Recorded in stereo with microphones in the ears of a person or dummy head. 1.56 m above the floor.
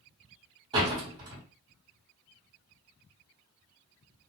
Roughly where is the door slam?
Right.